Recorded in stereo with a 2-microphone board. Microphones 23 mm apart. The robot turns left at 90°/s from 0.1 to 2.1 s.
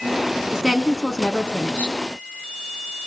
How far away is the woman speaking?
About 2.5 m.